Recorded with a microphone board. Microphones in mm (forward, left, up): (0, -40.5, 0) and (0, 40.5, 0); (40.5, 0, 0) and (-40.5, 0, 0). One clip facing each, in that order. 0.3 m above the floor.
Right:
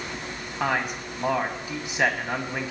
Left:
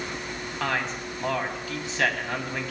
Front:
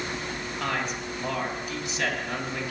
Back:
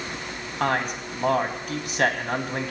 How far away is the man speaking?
About 2 m.